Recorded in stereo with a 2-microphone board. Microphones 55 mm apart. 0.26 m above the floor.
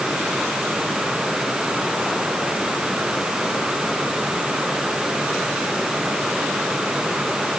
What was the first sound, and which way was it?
Only background noise.